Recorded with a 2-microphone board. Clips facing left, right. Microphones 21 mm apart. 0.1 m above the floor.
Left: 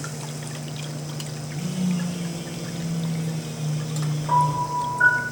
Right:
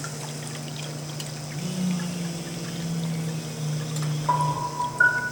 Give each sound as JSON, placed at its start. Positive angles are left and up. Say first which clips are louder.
{"t": 1.5, "sound": "a phone buzzing", "louder": "left 2 dB", "side_deg": 5, "distance_m": 1.9}
{"t": 4.3, "sound": "a piano", "louder": "left 4 dB", "side_deg": -55, "distance_m": 1.5}